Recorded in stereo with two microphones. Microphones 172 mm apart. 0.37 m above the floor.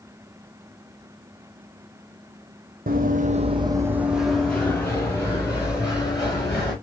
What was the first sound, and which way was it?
Running footsteps, 60° right (ahead or behind).